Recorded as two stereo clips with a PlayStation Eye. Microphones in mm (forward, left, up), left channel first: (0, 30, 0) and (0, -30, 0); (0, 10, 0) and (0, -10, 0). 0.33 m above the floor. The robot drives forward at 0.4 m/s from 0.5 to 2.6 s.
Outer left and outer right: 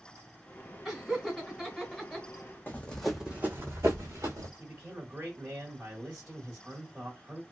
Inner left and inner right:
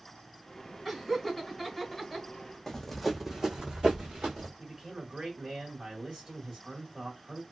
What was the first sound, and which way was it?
Laughter, 5° right (ahead or behind).